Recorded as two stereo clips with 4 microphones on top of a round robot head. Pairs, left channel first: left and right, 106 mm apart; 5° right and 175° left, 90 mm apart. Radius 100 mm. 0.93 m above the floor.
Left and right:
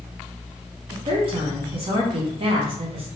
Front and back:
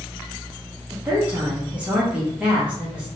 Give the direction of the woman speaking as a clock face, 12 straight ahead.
4 o'clock.